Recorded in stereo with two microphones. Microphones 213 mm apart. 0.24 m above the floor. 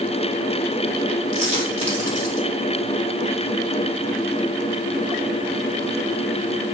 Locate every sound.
1.3 s a dropped coin: 35° right (ahead or behind), 4.5 m